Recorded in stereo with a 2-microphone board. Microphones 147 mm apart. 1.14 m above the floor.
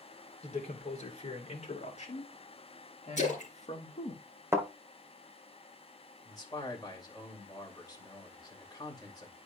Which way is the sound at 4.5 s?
20° right (ahead or behind).